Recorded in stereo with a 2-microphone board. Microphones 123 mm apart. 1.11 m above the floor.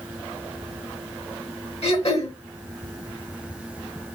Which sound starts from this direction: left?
Throat clearing, at 1.8 s.